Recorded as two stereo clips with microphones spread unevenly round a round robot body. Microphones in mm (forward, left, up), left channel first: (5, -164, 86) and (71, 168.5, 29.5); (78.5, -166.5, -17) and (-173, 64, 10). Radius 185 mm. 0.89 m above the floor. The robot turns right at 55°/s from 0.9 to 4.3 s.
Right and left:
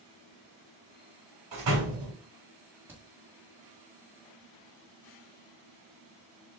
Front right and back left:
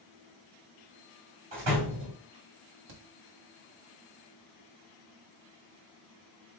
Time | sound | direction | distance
1.5 | a door slam | 115° left | 2 m
2.9 | a crack | 160° left | 1.4 m